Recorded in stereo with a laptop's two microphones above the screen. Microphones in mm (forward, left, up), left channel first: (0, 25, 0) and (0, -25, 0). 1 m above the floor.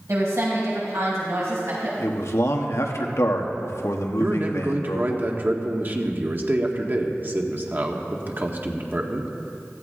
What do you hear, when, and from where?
0.1 s a woman speaking: 75° right (ahead or behind), 6 m
2.0 s a man speaking: 70° left (ahead or behind), 1.4 m
4.2 s a man speaking: 40° right (ahead or behind), 1.7 m